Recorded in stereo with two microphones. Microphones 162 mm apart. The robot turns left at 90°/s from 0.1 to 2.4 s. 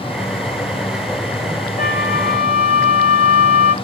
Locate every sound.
1.8 s a flute: 120° left, 1.3 m; by 3.7 s 60° left, 1.3 m